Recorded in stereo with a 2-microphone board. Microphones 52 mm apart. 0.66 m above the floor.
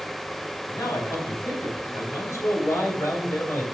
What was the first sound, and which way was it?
A man speaking, 75° left (ahead or behind).